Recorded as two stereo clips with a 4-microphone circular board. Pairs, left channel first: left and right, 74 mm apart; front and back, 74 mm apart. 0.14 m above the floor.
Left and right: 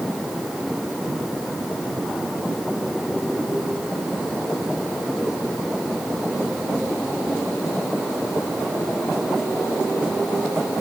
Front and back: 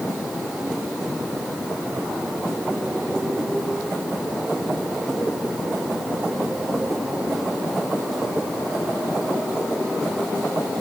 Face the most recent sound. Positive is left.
No sound to turn to.